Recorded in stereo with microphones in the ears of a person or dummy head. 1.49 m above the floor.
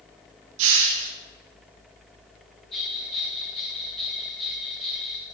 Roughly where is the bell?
Centre.